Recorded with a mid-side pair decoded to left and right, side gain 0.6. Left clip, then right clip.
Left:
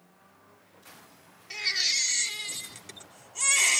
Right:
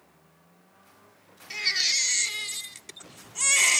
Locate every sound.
1.5 s a baby crying: 15° right, 1.0 m